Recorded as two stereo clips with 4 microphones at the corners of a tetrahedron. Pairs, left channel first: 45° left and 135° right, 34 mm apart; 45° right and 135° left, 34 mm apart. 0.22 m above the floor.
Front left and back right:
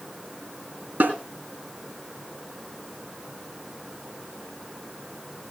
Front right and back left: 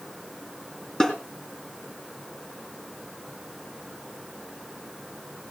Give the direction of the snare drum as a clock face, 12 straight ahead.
4 o'clock.